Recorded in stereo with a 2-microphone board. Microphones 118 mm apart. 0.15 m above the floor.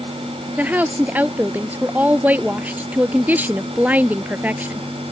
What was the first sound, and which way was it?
A woman speaking, 15° right (ahead or behind).